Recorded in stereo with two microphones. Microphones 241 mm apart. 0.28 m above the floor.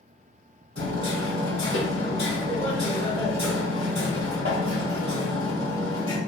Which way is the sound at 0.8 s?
45° right (ahead or behind).